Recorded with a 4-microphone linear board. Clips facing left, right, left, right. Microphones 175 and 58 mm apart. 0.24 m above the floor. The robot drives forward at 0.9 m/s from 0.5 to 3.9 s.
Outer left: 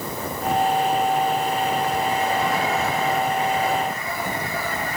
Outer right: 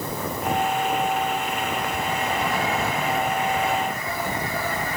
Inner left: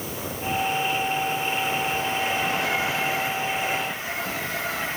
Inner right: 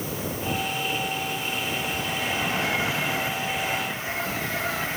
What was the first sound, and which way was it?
Only background noise.